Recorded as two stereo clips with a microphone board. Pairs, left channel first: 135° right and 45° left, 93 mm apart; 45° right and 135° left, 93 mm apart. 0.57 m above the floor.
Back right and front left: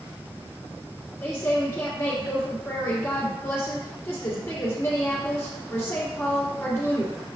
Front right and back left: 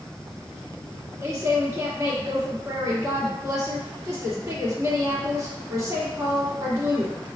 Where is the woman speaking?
170° left, 1.5 m.